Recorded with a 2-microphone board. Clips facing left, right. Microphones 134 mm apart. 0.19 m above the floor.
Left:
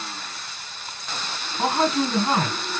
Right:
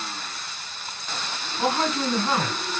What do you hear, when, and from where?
1.6 s a man speaking: 15° left (ahead or behind), 1.4 m